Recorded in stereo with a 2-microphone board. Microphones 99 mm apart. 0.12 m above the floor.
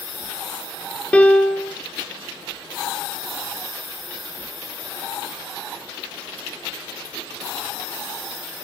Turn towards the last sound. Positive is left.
turn(degrees=15)  # may be behind; listen again after turning